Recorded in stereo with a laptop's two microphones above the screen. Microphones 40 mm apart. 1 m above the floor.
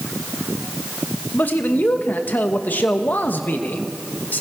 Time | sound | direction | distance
1.3 | a man speaking | 50° left (ahead or behind) | 1.1 m